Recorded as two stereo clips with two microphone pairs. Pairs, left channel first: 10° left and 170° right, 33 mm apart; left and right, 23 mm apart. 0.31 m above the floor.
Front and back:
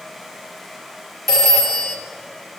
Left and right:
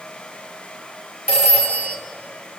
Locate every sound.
1.3 s a phone ringing: 70° right, 4 m